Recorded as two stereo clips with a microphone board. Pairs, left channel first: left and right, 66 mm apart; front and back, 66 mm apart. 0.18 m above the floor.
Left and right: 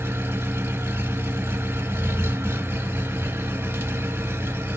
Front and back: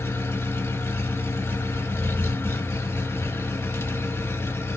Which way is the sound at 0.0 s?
50° right.